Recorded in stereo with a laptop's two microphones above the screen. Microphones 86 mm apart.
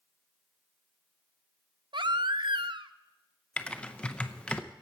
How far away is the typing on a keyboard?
About 0.6 m.